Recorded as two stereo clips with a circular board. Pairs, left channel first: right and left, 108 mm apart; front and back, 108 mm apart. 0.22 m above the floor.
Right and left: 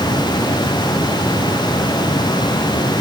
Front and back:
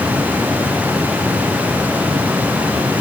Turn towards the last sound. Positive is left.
No sound to turn to.